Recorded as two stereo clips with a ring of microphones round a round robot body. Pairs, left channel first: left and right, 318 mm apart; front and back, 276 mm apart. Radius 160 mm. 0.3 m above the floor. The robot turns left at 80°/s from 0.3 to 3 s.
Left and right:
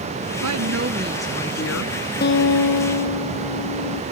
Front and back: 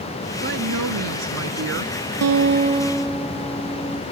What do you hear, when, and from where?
0.4 s a woman speaking: 115° right; by 1.9 s 120° left
2.2 s a guitar: 150° left; by 4.0 s 90° left